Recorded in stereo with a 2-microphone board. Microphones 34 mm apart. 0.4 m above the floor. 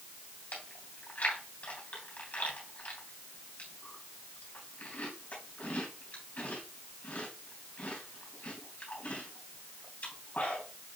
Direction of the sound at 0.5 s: 50° left (ahead or behind).